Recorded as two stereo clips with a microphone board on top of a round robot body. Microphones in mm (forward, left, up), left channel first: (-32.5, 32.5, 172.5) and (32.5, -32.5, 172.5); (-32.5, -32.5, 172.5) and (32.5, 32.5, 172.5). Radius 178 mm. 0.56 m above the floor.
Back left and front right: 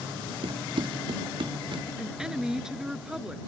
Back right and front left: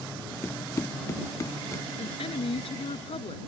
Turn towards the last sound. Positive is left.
turn(degrees=-130)